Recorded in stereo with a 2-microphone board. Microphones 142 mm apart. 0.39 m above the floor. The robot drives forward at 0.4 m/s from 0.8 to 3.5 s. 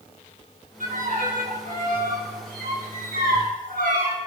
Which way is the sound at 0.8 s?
65° right (ahead or behind).